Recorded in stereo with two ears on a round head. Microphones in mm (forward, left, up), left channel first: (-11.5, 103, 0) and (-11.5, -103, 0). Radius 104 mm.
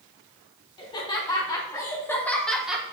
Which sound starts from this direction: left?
Laughter, at 0.8 s.